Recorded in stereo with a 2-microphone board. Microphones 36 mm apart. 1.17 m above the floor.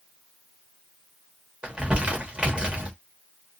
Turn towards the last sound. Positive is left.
turn(degrees=-30)  # may be behind; listen again after turning